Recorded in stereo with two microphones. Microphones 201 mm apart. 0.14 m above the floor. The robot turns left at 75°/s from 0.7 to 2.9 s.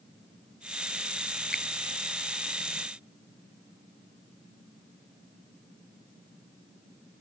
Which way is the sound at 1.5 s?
50° left (ahead or behind).